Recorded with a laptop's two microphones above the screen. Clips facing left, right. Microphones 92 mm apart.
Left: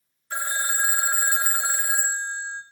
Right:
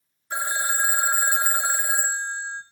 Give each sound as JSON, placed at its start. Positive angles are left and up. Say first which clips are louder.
{"t": 0.3, "sound": "a phone ringing", "louder": "right 2 dB", "side_deg": -15, "distance_m": 1.8}